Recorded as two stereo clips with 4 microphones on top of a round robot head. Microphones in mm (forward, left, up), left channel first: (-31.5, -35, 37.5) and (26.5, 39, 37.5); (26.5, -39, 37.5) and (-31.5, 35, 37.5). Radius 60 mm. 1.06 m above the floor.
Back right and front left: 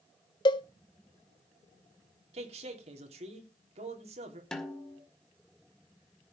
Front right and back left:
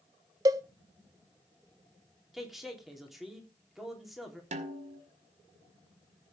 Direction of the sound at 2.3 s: 40° left.